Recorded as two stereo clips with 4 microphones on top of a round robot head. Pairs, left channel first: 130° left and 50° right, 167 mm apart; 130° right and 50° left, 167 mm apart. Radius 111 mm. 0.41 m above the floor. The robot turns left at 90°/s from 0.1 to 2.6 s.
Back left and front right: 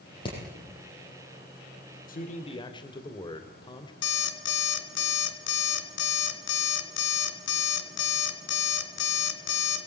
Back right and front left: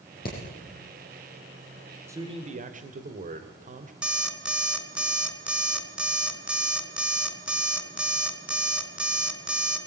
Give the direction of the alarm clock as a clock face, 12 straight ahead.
8 o'clock.